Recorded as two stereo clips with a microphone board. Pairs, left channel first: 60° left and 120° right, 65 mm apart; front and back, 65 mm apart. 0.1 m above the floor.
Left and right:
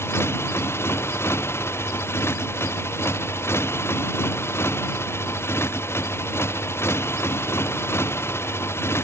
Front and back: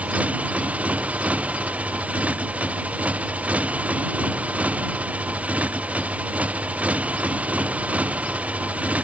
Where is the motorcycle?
110° left.